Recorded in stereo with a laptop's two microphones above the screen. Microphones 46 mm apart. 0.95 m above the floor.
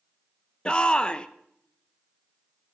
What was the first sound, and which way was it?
A shout, 20° left (ahead or behind).